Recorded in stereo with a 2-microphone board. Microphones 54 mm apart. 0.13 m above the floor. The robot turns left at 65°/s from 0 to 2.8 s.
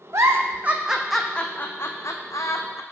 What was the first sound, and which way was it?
A giggle, 60° right (ahead or behind).